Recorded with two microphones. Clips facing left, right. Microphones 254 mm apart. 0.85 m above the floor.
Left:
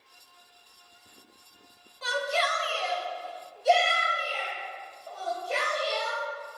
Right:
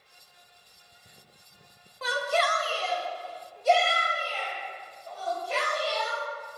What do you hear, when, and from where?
2.0 s a shout: 65° right (ahead or behind), 0.7 m; by 6.6 s 45° left (ahead or behind), 1.9 m